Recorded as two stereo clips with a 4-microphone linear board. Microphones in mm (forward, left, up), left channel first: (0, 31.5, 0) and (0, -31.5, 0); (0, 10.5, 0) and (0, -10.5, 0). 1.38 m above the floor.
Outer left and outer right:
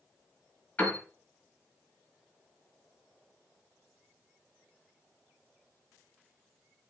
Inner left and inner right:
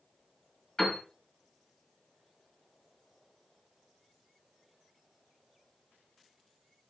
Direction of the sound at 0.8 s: 35° left (ahead or behind).